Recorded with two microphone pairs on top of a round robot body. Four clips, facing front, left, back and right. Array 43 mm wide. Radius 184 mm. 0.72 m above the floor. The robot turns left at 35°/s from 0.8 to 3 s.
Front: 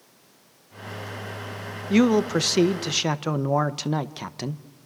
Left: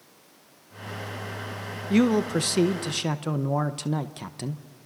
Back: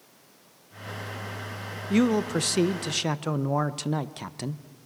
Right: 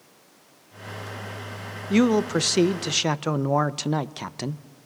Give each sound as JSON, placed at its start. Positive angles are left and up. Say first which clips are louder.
{"t": 1.9, "sound": "a man speaking", "louder": "right 2 dB, front 4 dB", "azimuth_deg": 0, "distance_m": 1.0}